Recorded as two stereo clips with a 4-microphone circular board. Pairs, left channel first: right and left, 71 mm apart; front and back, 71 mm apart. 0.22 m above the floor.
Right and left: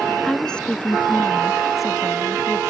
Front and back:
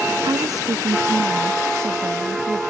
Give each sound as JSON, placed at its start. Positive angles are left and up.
{"t": 0.2, "sound": "a woman speaking", "azimuth_deg": -175}